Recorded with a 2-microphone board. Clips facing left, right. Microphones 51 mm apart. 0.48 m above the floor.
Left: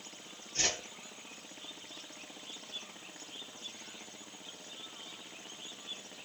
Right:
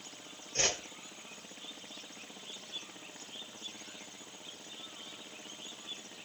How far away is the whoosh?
About 1.9 m.